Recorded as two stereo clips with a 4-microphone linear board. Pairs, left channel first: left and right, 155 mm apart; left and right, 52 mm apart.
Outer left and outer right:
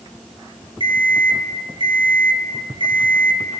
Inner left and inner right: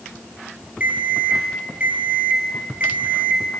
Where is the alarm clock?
30° right (ahead or behind), 2.5 m.